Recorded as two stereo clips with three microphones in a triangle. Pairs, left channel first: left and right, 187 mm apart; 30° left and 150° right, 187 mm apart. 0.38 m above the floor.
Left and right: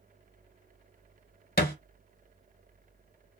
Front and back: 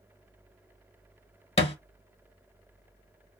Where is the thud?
75° left, 0.8 m.